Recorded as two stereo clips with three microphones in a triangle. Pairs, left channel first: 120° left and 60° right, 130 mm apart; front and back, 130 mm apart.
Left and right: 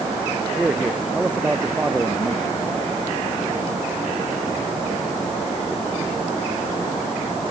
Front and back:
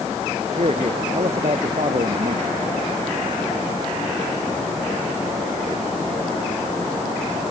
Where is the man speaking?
140° right.